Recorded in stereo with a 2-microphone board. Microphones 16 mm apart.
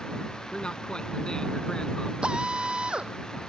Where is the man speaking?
65° left (ahead or behind); by 2.1 s 60° left (ahead or behind).